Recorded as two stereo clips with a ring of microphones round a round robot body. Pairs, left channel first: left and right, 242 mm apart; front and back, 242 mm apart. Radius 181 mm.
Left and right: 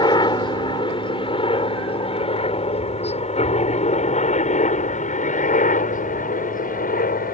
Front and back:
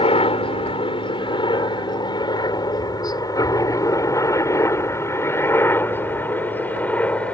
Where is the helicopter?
40° left; by 7.3 s 80° left.